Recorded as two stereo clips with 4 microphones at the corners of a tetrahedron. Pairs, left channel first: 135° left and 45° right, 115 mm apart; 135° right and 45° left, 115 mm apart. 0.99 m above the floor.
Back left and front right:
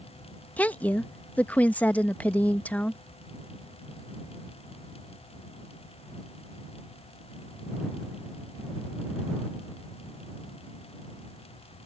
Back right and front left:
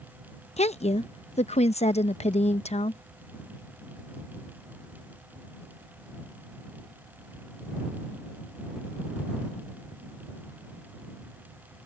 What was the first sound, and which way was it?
A woman speaking, 150° right.